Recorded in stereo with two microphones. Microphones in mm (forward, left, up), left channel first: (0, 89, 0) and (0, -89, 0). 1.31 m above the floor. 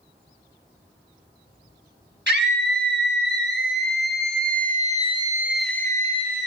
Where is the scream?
80° right, 2.5 m; by 6.5 s 40° left (ahead or behind), 1.0 m.